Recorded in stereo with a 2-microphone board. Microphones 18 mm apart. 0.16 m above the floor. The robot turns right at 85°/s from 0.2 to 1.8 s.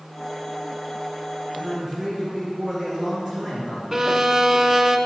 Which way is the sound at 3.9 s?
20° right (ahead or behind).